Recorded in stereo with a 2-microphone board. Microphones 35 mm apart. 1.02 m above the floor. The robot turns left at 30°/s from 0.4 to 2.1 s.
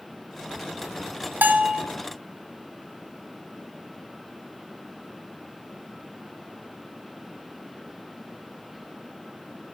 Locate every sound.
1.4 s a bell: 65° right (ahead or behind), 1.0 m